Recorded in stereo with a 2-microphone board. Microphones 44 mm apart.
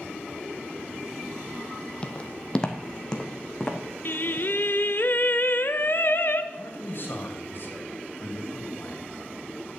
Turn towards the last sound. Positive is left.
turn(degrees=50)  # may be behind; listen again after turning